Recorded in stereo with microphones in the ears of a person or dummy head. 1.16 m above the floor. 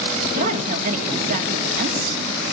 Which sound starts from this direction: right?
A woman speaking, at 0.3 s.